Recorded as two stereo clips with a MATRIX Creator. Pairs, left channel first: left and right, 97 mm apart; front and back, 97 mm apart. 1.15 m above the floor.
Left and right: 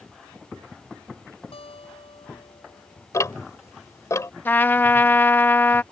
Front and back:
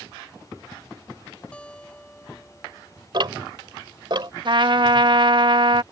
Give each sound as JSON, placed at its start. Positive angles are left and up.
{"t": 1.5, "sound": "a guitar", "azimuth_deg": 80}
{"t": 3.1, "sound": "ticking", "azimuth_deg": 145}
{"t": 4.5, "sound": "a trumpet", "azimuth_deg": 155}